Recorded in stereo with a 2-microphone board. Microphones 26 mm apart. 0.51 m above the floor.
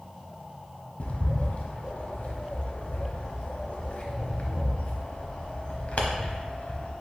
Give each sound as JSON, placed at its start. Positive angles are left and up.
{"t": 1.0, "sound": "a bird", "side_deg": 50, "distance_m": 0.7}